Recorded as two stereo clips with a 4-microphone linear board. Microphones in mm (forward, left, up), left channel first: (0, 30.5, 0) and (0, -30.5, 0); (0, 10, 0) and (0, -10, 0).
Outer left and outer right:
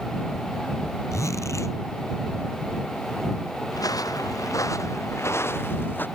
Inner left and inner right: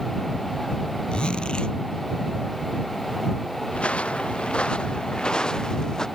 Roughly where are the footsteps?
Left.